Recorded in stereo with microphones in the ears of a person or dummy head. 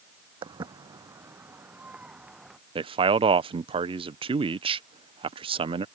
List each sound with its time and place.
0.4 s footsteps: 30° right (ahead or behind); by 2.6 s 5° right (ahead or behind)
2.8 s a man speaking: 25° right (ahead or behind)